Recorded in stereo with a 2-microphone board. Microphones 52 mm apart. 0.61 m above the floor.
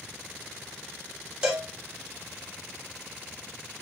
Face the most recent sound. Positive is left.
turn(degrees=-10)  # may be behind; listen again after turning